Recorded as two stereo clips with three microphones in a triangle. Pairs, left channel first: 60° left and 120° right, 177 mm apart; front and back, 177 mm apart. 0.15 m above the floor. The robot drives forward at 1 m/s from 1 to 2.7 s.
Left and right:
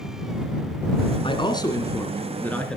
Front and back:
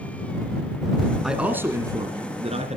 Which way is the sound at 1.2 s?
95° left.